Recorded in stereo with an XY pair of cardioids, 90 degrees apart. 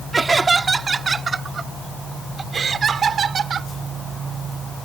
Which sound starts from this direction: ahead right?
Laughter, at 0.1 s.